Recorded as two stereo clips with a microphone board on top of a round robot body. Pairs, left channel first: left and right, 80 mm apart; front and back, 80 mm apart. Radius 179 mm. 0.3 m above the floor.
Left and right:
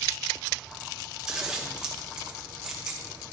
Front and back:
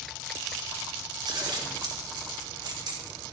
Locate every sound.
1.3 s scissors: 170° right, 2.0 m